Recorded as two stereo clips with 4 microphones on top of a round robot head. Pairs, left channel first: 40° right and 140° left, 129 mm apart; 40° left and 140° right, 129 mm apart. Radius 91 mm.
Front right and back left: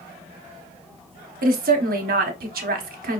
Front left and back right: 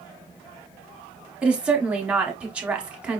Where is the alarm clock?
No alarm clock in this recording.